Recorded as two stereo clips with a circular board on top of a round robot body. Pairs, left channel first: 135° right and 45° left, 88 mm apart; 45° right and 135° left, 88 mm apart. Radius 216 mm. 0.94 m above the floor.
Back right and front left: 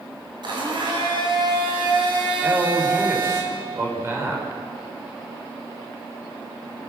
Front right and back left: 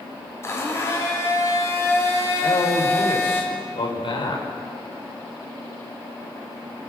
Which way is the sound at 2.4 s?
15° right.